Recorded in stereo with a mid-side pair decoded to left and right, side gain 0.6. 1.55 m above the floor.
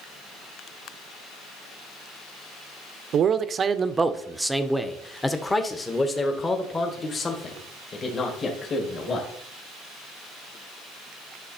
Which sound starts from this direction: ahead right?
A man speaking, at 3.1 s.